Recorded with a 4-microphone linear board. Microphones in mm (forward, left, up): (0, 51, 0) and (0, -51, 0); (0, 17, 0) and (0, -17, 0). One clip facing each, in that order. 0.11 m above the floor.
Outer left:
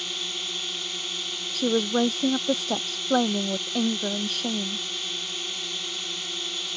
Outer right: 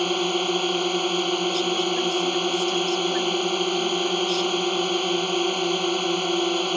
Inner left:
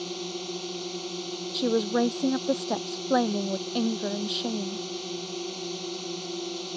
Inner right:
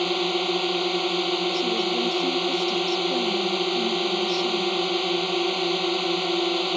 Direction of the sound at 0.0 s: 60° right (ahead or behind).